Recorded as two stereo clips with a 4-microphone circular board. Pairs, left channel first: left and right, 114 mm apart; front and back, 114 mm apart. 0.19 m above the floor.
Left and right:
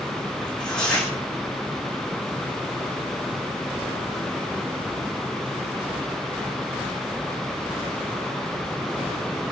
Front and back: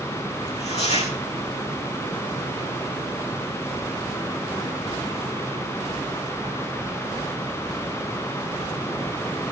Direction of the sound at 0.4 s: 5° left.